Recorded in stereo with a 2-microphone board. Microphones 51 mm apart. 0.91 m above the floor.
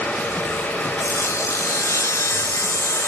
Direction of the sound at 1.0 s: 75° left (ahead or behind).